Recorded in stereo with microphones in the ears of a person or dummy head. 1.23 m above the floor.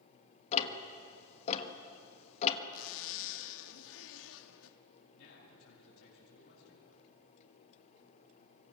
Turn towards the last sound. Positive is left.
turn(degrees=80)